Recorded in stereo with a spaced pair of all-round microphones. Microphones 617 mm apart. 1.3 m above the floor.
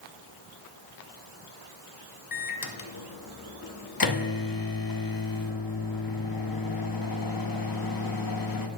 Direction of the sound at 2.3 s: 35° left (ahead or behind).